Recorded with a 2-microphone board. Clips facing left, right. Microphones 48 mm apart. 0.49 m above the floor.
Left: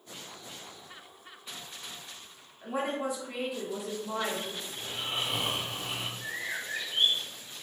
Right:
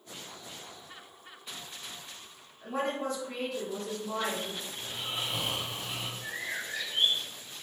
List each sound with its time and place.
2.6 s a woman speaking: 15° left (ahead or behind), 1.0 m
4.8 s snoring: 55° left (ahead or behind), 0.7 m
6.2 s a bird: 50° left (ahead or behind), 1.9 m